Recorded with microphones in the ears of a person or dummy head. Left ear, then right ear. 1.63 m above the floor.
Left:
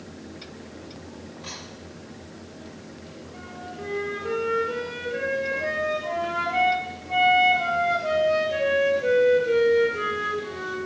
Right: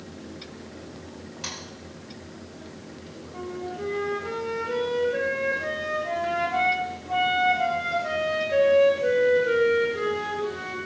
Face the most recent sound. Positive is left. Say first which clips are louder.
# right 5 dB
turn(degrees=5)  # may be behind; listen again after turning